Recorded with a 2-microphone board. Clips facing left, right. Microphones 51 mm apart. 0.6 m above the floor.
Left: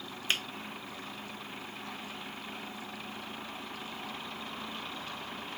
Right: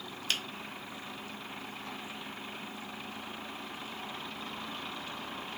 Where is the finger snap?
30° left (ahead or behind), 0.7 m.